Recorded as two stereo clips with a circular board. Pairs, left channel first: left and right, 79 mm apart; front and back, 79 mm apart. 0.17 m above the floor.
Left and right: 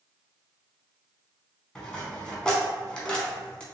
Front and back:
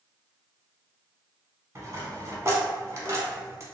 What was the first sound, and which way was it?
A dropped coin, 165° left.